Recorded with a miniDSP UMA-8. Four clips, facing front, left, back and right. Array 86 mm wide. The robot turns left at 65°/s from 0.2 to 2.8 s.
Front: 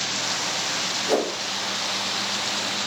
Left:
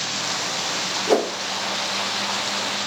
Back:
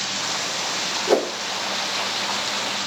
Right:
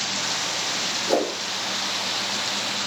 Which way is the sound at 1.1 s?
135° left.